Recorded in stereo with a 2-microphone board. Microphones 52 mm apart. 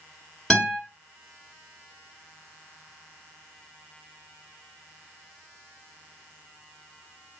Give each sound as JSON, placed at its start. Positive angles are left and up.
{"t": 0.5, "sound": "a guitar", "side_deg": 10, "distance_m": 1.8}